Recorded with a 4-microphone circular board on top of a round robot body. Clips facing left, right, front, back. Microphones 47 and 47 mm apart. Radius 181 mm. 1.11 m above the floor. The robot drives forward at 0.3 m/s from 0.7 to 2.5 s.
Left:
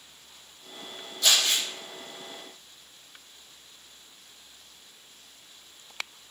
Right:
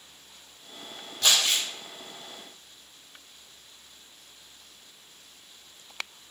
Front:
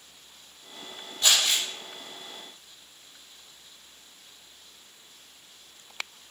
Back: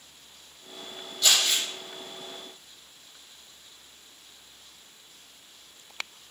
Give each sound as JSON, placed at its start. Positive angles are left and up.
{"t": 1.2, "sound": "crumpling", "azimuth_deg": -65, "distance_m": 1.1}